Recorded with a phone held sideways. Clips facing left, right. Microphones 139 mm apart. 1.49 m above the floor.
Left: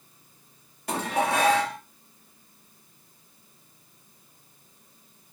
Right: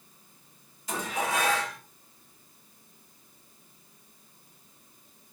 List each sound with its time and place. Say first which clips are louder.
0.9 s dishes clattering: left 5 dB; 65° left (ahead or behind), 1.8 m